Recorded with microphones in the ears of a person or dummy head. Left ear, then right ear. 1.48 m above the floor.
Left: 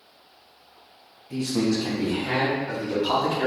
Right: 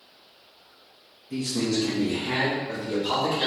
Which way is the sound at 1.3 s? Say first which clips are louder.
Left 2 dB; 35° left (ahead or behind).